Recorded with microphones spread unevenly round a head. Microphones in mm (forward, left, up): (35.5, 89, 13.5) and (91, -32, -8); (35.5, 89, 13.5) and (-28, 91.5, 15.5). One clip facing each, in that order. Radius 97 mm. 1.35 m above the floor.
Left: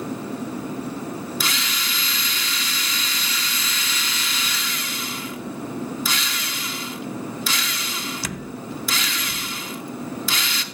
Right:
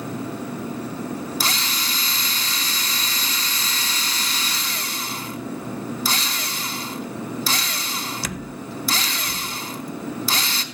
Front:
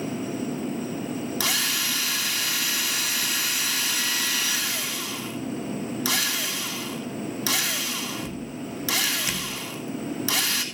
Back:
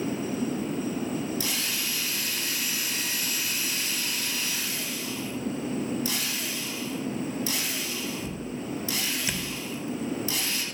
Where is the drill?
10° right, 3 m.